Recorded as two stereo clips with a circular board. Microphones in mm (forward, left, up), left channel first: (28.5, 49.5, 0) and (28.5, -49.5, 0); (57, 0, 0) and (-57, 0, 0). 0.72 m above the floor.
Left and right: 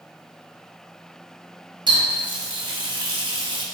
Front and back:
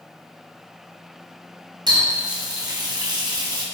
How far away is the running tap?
About 0.6 m.